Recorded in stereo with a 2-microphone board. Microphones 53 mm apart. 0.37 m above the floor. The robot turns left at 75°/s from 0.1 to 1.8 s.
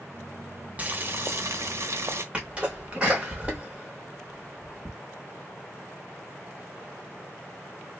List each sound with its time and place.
0.8 s boiling: 30° right, 0.6 m; by 2.2 s 105° right, 0.6 m
2.3 s a sneeze: 20° right (ahead or behind), 0.8 m